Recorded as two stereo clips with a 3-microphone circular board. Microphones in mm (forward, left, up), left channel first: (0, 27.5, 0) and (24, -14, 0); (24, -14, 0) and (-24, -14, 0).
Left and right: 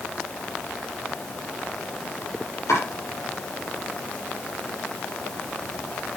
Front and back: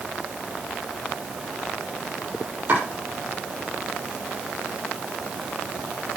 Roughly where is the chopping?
Behind left.